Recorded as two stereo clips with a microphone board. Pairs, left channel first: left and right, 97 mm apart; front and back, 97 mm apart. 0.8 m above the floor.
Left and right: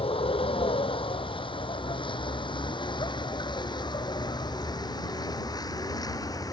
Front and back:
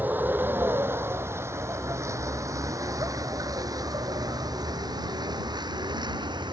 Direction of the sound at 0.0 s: 110° left.